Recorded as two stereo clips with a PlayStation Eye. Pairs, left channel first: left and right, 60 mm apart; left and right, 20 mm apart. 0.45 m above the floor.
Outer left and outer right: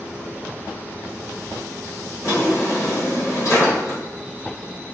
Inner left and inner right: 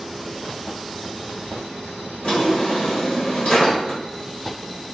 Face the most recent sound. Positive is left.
turn(degrees=55)  # may be behind; listen again after turning